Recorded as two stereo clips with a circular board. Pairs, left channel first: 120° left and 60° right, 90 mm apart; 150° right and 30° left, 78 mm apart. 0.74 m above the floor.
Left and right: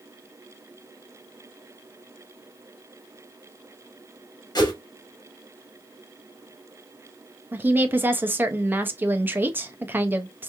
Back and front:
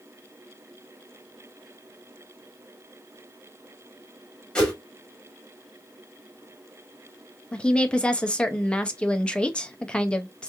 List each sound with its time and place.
4.5 s a whoosh: 135° left, 1.4 m
7.5 s a woman speaking: 90° right, 0.6 m